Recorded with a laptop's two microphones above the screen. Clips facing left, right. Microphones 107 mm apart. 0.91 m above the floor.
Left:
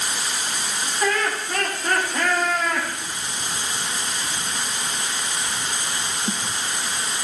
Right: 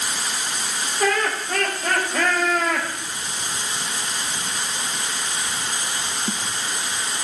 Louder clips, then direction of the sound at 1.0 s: Right 2 dB; 60° right (ahead or behind).